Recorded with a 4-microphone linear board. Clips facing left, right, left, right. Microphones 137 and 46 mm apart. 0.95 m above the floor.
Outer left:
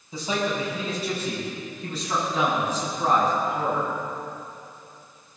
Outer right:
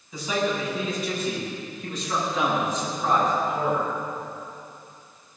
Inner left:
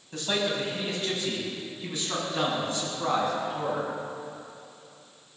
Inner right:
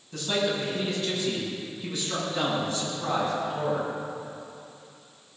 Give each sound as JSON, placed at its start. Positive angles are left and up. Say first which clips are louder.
{"t": 0.1, "sound": "a man speaking", "louder": "outer right 1 dB, inner right 1 dB", "side_deg": 30, "distance_m": 6.0}